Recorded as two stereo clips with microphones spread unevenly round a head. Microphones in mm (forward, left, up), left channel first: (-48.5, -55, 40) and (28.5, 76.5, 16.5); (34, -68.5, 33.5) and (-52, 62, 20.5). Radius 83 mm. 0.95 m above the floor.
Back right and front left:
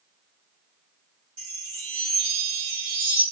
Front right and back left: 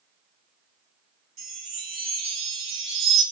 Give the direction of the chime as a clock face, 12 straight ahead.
8 o'clock.